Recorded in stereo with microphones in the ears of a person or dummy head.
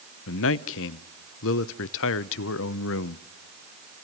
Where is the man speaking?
70° left (ahead or behind), 0.8 m.